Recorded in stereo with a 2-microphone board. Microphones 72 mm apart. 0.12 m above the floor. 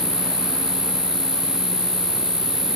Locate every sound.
0.0 s an insect: 10° left (ahead or behind), 6 m